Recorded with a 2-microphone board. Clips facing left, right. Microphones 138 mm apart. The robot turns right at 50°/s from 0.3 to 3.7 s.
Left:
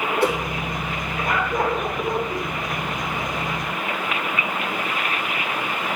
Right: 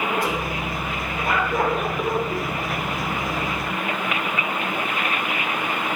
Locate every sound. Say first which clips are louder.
0.2 s a whoosh: left 4 dB; 70° left (ahead or behind), 2.5 m; by 0.4 s 65° left (ahead or behind), 2.5 m